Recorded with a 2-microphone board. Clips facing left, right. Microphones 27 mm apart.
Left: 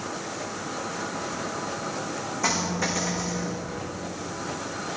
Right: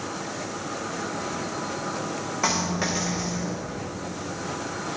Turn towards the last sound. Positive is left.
turn(degrees=-50)  # may be behind; listen again after turning